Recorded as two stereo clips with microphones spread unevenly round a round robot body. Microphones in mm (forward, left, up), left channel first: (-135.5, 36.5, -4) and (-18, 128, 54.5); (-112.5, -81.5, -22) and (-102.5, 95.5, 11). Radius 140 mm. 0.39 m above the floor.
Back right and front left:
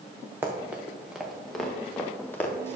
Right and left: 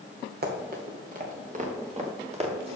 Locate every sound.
0.4 s running footsteps: 110° left, 2.5 m; by 2.8 s 140° left, 3 m